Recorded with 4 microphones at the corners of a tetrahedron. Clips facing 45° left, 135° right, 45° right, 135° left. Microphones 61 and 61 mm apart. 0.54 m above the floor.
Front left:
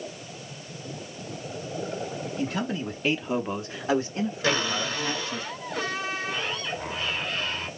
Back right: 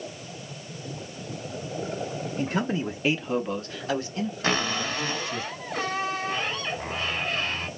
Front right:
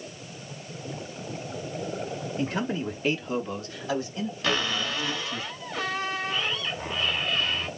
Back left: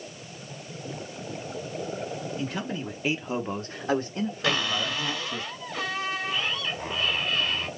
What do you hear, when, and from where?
2.4 s a man speaking: 95° right, 0.8 m; by 5.4 s 100° left, 1.9 m
4.4 s a cupboard door: 140° right, 1.5 m